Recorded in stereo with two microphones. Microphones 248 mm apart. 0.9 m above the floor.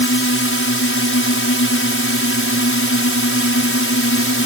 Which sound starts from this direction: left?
A drone, at 0.0 s.